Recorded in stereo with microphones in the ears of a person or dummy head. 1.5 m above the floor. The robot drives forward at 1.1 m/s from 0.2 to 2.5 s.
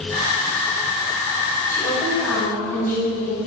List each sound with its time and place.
1.7 s a woman speaking: 20° left (ahead or behind), 1.8 m; by 3.4 s 10° left (ahead or behind), 2.5 m